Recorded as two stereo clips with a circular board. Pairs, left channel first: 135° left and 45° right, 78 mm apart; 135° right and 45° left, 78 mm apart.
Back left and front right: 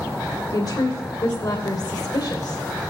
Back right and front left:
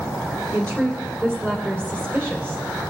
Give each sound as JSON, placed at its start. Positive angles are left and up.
{"t": 0.5, "sound": "a woman speaking", "azimuth_deg": 105, "distance_m": 2.5}